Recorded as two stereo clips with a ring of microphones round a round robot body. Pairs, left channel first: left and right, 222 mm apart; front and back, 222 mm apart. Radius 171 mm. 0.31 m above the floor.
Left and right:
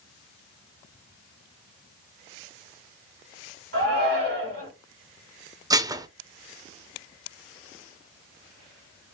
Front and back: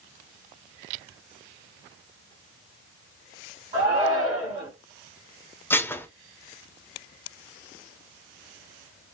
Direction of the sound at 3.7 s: 110° right.